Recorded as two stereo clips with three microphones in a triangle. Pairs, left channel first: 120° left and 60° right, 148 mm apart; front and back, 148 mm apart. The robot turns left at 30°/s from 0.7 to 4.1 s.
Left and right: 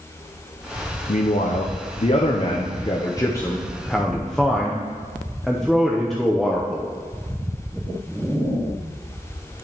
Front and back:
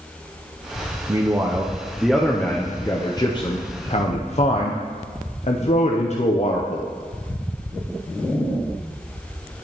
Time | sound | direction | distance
1.1 | a man speaking | 125° left | 0.5 m